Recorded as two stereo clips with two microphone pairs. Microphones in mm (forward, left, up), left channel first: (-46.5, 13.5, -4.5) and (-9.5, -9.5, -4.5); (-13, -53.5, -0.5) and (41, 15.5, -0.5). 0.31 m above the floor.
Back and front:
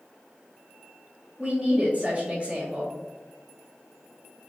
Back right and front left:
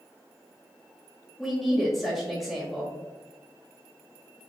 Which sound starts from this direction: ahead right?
A woman speaking, at 1.4 s.